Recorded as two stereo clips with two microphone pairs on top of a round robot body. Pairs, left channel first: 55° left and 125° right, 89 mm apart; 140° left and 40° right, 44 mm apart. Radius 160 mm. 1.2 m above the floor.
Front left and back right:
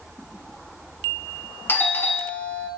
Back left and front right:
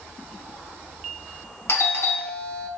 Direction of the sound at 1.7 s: 115° left.